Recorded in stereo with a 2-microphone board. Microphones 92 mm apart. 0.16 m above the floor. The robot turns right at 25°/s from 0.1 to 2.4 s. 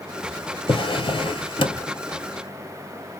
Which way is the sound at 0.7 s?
70° left (ahead or behind).